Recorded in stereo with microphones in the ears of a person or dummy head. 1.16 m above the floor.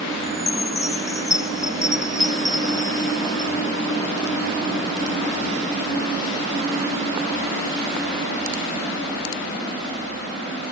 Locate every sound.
0.2 s a chime: 15° left (ahead or behind)